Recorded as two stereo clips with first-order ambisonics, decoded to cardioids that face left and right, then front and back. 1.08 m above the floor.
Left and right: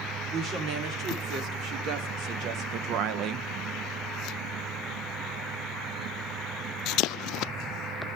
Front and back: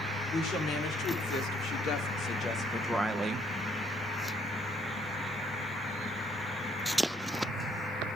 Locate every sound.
0.3 s a woman speaking: 40° right, 3 m; by 3.5 s 140° right, 0.7 m